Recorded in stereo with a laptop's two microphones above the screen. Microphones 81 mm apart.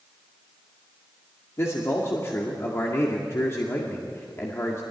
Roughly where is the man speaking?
Left.